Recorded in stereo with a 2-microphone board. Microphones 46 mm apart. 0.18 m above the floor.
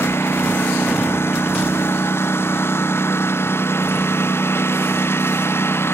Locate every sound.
0.0 s a lawn mower: 55° left (ahead or behind)